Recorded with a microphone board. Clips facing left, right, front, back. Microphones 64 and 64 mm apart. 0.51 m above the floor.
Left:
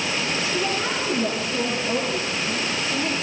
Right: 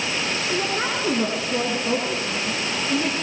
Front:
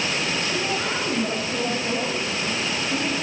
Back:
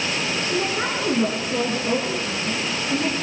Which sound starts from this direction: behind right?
A woman speaking, at 0.4 s.